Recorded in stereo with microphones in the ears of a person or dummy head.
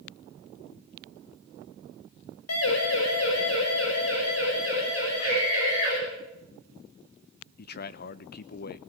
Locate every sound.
2.5 s a siren: 80° left, 6 m; by 6.0 s 75° left (ahead or behind), 11 m
5.2 s a scream: 45° left (ahead or behind), 6 m
7.6 s a man speaking: 45° left (ahead or behind), 0.9 m